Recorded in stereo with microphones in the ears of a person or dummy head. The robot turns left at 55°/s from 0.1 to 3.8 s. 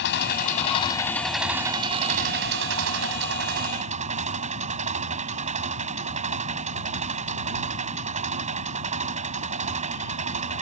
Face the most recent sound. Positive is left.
turn(degrees=-135)